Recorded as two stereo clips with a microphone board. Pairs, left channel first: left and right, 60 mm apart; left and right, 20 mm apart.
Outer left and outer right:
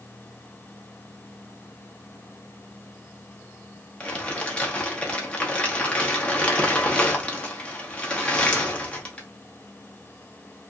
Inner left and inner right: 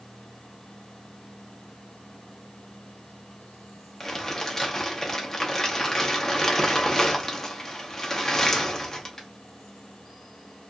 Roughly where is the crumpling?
Left.